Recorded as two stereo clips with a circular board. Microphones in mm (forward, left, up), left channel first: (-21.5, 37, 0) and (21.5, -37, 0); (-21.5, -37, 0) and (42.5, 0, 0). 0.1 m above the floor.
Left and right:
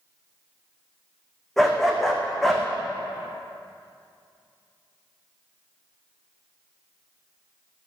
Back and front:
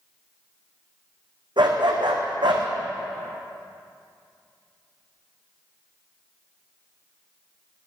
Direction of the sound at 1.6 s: 35° left.